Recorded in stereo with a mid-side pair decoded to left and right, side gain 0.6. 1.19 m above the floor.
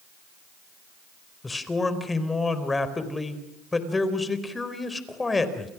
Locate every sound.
1.4 s a man speaking: 15° left, 4.5 m